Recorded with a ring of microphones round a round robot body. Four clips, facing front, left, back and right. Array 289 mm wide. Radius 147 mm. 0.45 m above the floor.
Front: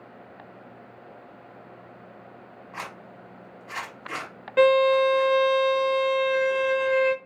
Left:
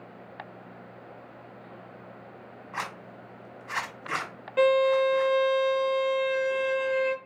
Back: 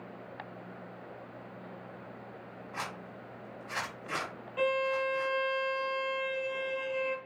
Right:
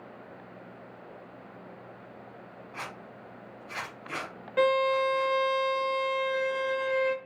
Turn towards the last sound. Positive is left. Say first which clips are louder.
# left 3 dB, front 12 dB
turn(degrees=-5)